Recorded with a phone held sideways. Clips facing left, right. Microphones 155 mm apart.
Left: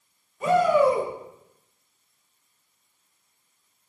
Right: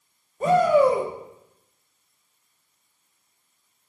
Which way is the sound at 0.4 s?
40° right (ahead or behind).